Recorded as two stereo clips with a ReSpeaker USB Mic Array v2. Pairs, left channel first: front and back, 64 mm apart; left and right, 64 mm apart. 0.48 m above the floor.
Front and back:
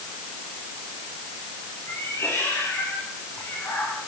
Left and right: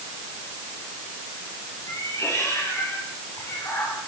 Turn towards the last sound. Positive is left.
turn(degrees=45)